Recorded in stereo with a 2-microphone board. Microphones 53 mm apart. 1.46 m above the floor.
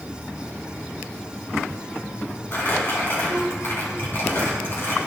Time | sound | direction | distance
2.5 | crumpling | 50° left (ahead or behind) | 2.5 m